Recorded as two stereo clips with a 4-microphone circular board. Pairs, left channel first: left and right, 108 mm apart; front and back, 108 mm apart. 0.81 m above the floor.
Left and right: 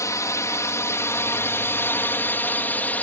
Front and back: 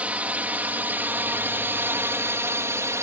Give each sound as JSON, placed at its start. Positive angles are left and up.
{"t": 0.0, "sound": "a drone", "azimuth_deg": 115}